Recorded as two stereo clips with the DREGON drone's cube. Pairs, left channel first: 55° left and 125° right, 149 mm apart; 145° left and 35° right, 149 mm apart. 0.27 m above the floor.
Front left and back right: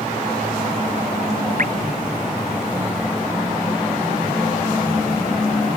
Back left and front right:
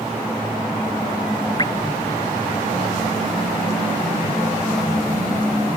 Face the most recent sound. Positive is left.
turn(degrees=-150)